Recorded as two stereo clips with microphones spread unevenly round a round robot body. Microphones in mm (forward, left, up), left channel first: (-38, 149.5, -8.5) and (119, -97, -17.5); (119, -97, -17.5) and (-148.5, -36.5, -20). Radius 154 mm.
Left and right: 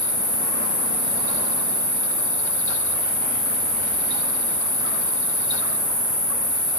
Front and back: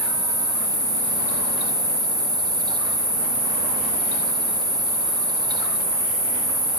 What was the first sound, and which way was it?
An insect, 170° left.